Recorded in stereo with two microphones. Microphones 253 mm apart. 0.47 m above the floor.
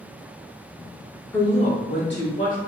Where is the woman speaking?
5° left (ahead or behind), 0.7 m; by 2.6 s 55° left (ahead or behind), 1.6 m.